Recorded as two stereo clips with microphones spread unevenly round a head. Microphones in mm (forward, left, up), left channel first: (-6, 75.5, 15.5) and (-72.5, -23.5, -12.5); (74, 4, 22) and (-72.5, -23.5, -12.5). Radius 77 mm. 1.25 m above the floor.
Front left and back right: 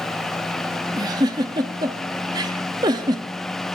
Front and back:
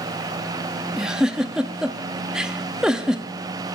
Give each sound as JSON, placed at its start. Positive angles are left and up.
{"t": 1.0, "sound": "a giggle", "azimuth_deg": -65, "distance_m": 0.7}